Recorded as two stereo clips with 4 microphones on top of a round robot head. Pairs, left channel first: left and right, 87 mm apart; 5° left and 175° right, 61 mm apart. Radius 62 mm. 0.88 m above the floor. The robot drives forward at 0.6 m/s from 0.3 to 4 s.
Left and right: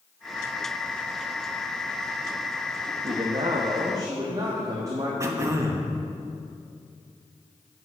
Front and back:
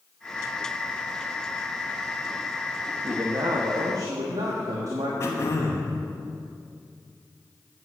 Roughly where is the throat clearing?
Ahead right.